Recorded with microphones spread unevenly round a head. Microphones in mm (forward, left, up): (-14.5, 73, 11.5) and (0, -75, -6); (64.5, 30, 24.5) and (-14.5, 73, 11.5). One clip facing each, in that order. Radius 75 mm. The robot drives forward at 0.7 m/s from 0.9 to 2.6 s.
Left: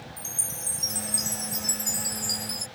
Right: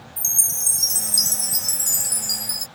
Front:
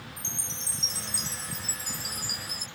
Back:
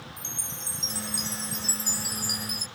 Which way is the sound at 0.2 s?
115° right.